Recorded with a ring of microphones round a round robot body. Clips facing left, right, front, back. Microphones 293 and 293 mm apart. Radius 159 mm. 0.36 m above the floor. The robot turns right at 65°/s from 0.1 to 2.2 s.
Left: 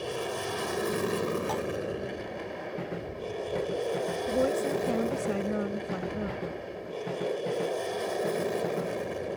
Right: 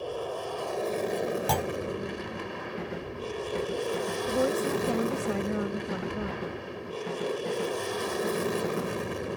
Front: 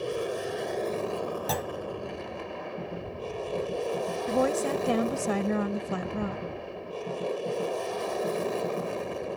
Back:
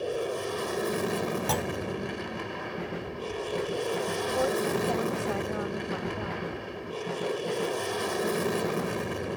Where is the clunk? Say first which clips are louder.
Right 1 dB, back 2 dB; 100° right; by 1.7 s 85° right.